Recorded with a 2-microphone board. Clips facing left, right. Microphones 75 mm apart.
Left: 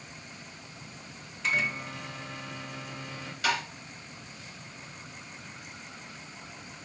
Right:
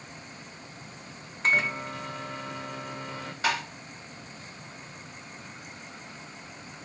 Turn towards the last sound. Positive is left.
turn(degrees=-30)  # may be behind; listen again after turning